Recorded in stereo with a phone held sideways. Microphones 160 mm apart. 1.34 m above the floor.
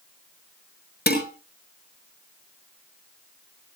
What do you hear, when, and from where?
1.1 s dishes clattering: 70° left (ahead or behind), 6 m